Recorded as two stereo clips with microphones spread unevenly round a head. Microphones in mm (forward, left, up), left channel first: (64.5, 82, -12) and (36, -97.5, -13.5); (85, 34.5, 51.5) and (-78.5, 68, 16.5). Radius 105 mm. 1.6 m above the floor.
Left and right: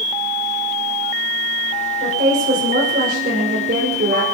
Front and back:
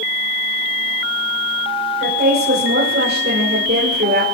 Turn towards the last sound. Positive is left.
turn(degrees=-150)